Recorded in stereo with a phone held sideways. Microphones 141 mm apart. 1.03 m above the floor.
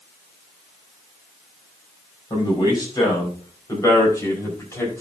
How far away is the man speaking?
About 6 m.